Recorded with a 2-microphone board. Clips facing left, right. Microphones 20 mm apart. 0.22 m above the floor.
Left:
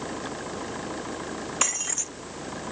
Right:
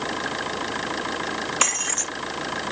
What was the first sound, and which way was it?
An engine running, 65° right (ahead or behind).